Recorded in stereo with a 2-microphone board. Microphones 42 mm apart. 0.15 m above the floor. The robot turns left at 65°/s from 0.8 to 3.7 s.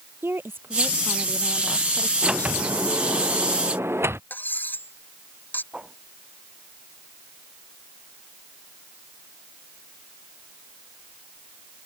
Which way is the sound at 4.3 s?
45° left (ahead or behind).